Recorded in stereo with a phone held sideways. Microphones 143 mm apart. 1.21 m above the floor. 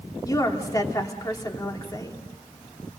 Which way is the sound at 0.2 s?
25° left (ahead or behind).